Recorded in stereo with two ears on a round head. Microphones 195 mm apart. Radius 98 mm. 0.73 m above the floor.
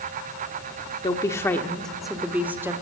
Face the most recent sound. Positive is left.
turn(degrees=-10)  # may be behind; listen again after turning